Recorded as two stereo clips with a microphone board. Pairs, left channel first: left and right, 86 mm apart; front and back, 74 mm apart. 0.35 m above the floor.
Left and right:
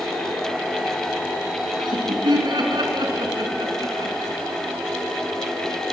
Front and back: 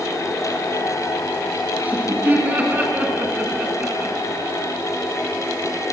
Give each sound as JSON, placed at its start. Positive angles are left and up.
{"t": 1.8, "sound": "laughter", "azimuth_deg": -115, "distance_m": 5.0}